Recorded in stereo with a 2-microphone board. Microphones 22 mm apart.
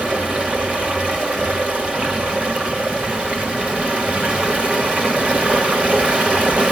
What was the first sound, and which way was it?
Running water, 80° right.